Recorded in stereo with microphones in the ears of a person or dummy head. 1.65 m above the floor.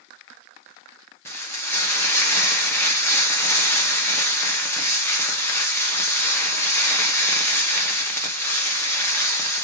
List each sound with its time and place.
1.2 s frying: 5° left (ahead or behind), 1.2 m